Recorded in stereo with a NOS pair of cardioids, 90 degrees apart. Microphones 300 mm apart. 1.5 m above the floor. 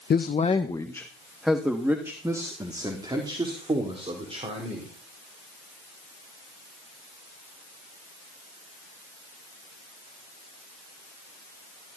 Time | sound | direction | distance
0.1 | a man speaking | 35° left | 1.2 m